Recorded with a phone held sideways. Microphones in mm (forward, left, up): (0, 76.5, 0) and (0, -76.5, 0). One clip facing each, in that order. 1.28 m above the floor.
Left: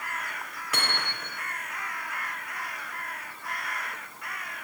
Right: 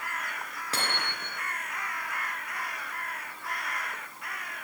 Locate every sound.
0.7 s hammering: 30° right (ahead or behind), 4 m